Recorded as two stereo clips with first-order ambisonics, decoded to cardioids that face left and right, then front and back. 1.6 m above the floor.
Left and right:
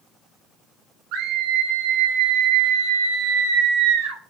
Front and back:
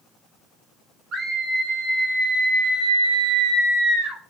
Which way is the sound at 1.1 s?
120° right.